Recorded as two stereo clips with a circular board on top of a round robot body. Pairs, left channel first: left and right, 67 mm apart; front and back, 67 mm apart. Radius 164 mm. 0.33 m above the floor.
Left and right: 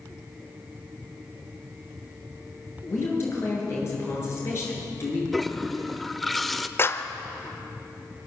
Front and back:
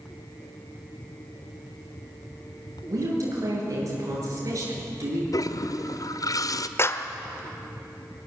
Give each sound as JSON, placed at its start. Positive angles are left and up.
{"t": 2.9, "sound": "a woman speaking", "azimuth_deg": 140, "distance_m": 9.0}
{"t": 5.3, "sound": "a toilet flushing", "azimuth_deg": 5, "distance_m": 1.2}
{"t": 6.8, "sound": "a clap", "azimuth_deg": 45, "distance_m": 1.4}